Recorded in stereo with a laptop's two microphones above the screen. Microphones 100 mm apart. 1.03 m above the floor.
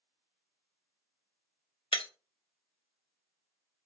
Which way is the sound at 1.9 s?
60° left (ahead or behind).